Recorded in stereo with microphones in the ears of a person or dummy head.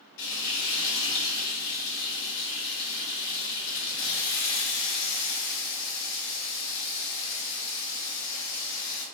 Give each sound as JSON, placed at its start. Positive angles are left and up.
{"t": 0.2, "sound": "frying", "side_deg": 60, "distance_m": 1.3}